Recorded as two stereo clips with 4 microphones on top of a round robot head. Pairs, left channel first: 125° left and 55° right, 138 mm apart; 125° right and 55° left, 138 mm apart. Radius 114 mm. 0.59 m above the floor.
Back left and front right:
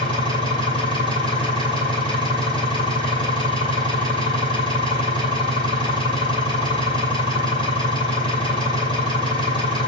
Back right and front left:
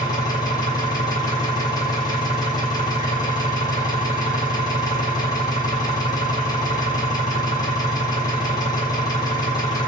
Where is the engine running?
175° left, 5.5 m.